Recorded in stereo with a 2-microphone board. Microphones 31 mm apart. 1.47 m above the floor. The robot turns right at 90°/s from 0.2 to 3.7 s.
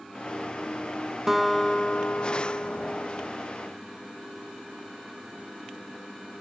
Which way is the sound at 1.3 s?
10° right.